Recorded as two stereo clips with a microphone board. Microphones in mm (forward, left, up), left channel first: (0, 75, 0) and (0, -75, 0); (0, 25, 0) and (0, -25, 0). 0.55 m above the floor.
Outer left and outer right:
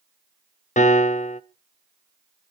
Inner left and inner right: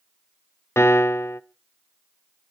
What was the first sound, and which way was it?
A piano, 55° left (ahead or behind).